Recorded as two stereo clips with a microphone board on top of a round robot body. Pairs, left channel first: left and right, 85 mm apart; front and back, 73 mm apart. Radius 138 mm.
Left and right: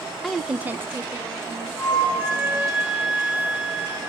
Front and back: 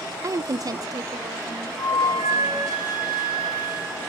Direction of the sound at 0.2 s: 175° left.